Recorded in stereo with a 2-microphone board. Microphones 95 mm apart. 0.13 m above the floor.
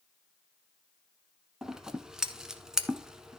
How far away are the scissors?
About 0.9 m.